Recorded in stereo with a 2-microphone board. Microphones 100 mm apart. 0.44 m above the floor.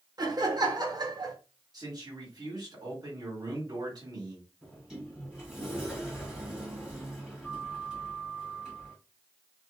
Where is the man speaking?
40° right (ahead or behind), 1.6 m.